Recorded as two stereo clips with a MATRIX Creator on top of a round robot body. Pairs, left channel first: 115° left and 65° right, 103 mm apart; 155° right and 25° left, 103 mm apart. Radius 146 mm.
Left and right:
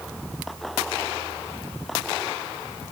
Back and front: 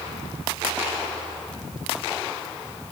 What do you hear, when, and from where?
Only background noise.